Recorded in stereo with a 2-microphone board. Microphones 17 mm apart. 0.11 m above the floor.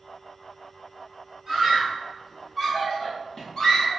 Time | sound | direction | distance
1.5 | a scream | 15° right (ahead or behind) | 1.7 m